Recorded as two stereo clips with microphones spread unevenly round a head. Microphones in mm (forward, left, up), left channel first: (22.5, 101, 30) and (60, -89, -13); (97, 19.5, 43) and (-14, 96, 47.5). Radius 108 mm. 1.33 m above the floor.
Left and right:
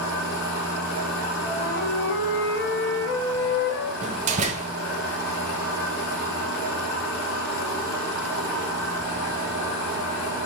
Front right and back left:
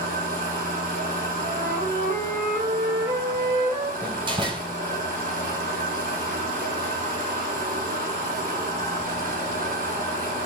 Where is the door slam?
145° right, 0.8 m.